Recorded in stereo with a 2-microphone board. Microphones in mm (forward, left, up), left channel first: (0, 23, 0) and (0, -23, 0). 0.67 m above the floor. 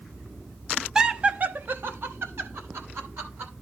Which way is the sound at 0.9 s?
10° right (ahead or behind).